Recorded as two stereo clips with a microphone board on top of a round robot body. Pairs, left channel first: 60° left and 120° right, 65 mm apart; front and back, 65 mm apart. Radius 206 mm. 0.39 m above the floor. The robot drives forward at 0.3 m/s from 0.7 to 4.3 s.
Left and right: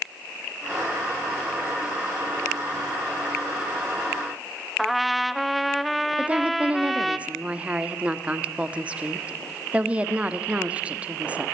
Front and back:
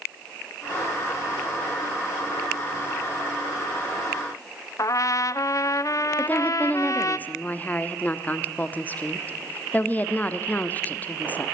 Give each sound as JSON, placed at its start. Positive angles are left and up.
{"t": 4.8, "sound": "a trumpet", "azimuth_deg": -30, "distance_m": 0.7}
{"t": 6.2, "sound": "a woman speaking", "azimuth_deg": -55, "distance_m": 1.3}